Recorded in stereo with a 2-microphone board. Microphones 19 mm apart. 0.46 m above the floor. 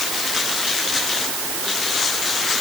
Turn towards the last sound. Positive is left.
No sound to turn to.